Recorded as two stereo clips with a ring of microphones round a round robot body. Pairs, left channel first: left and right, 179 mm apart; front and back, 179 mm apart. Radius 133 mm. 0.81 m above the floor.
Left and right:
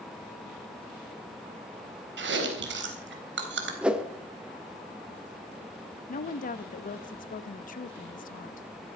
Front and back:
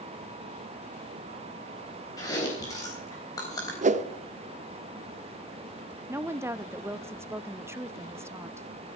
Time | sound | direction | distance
2.2 | chewing | 75° right | 3.5 m
3.8 | a whoosh | 170° right | 0.9 m
6.1 | a woman speaking | 110° left | 0.9 m